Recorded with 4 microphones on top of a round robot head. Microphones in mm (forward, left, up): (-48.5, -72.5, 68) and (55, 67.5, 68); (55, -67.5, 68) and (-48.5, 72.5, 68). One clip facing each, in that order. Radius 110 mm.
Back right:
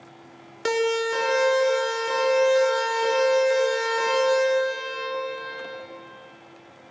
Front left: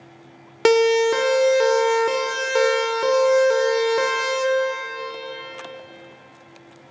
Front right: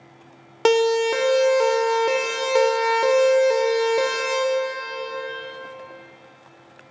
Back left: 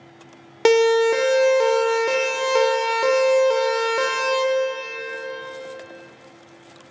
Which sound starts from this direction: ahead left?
A siren, at 0.7 s.